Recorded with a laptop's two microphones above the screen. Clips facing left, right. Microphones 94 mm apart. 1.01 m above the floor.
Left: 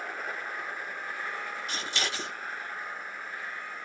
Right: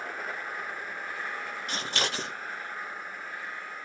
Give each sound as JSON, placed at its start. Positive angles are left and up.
{"t": 1.7, "sound": "scissors", "side_deg": -55, "distance_m": 1.4}